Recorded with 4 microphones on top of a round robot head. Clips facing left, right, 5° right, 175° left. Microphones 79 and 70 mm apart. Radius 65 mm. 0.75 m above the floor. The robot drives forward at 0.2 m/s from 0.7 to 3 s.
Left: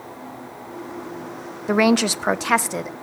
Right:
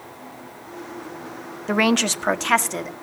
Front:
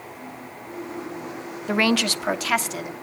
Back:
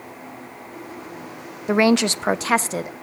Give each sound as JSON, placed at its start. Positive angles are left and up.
{"t": 1.7, "sound": "a woman speaking", "azimuth_deg": 155, "distance_m": 0.7}